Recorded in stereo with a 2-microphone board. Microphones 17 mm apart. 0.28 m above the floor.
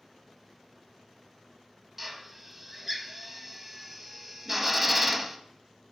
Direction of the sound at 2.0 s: 10° right (ahead or behind).